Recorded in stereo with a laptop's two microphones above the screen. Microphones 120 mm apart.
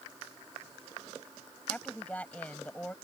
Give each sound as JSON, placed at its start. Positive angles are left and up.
{"t": 1.7, "sound": "a woman speaking", "side_deg": 10}